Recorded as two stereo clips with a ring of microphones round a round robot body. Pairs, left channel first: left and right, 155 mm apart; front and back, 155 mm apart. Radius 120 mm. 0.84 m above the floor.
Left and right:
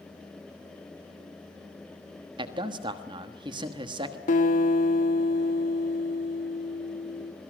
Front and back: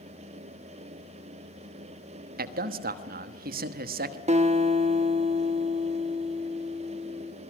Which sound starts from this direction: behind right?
A man speaking, at 2.4 s.